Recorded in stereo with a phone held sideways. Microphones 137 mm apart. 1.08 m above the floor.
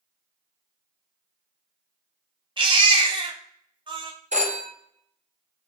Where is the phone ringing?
60° right (ahead or behind), 0.8 m.